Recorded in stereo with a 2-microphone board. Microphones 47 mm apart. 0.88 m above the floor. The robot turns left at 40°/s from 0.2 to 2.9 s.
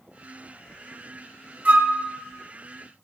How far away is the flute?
About 0.8 m.